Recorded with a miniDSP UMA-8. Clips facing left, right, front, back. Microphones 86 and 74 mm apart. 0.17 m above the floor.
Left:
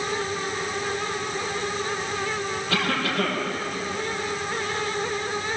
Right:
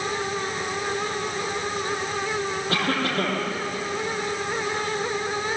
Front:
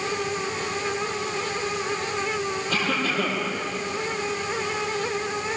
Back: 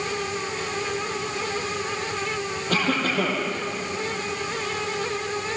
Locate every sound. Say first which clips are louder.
2.7 s a cough: even, back 4 dB; 140° right, 6 m